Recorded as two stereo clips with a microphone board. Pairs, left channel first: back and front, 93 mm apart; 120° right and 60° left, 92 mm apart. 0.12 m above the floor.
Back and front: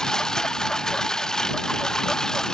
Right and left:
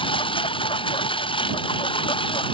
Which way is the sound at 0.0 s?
95° right.